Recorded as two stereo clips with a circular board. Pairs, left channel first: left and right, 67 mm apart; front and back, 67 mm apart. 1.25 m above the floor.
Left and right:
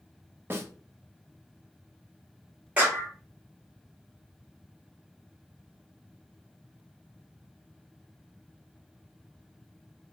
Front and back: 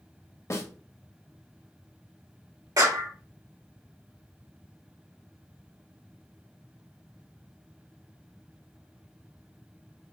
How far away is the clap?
About 3.5 m.